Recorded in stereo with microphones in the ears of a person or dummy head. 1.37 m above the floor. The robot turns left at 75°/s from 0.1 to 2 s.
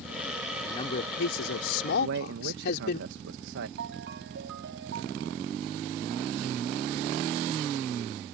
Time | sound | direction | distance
0.6 | a man speaking | 160° left | ?
2.0 | a man speaking | 70° right (ahead or behind) | ?
3.8 | a ringtone | 70° right (ahead or behind) | ?